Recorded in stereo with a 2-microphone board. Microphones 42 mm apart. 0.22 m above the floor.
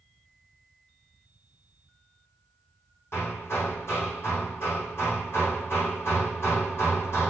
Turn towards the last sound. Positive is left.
turn(degrees=80)